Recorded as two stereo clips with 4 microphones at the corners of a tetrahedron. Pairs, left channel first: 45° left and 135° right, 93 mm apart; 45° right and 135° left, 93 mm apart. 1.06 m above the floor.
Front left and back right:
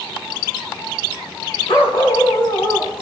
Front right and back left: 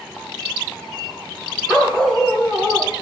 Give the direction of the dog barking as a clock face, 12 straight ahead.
11 o'clock.